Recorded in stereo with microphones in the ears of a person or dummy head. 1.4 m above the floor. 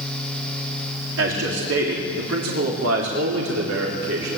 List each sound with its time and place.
1.2 s a man speaking: 75° right (ahead or behind), 3.5 m; by 4.4 s 85° right, 4.5 m